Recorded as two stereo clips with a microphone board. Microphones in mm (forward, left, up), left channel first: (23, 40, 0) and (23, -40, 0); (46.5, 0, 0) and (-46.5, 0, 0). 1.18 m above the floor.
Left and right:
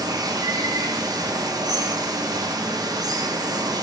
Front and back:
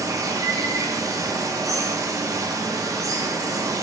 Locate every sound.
0.0 s running water: 125° right, 0.7 m